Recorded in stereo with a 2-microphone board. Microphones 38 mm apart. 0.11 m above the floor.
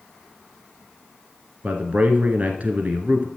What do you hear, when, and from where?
1.6 s a man speaking: 40° right (ahead or behind), 1.4 m